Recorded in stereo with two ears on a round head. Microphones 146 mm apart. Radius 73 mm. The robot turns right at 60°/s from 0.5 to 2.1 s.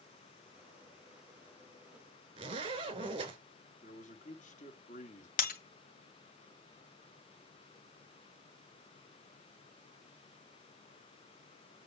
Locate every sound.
2.4 s a zipper: 35° right (ahead or behind), 3 m
3.8 s a man speaking: 45° left (ahead or behind), 1.3 m
5.4 s breaking glass: 55° left (ahead or behind), 2 m